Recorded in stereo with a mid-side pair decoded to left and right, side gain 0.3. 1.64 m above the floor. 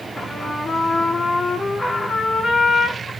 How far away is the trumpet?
About 2.5 m.